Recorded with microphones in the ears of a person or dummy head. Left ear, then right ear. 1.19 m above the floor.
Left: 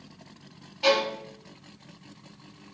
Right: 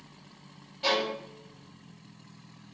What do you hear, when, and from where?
0.8 s a violin: 25° left (ahead or behind), 1.8 m